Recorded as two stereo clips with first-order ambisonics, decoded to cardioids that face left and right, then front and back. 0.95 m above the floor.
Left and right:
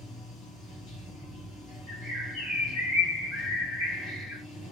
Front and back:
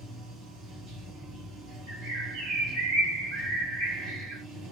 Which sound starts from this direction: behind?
A bird, at 1.9 s.